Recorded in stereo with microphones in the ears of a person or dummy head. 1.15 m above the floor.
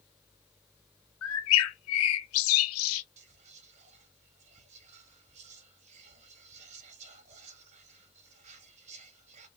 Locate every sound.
1.2 s a bird: 85° left, 0.7 m
3.2 s whispering: 40° right (ahead or behind), 1.4 m